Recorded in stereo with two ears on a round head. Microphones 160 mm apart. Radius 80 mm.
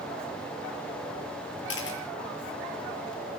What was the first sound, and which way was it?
A camera shutter, 70° left (ahead or behind).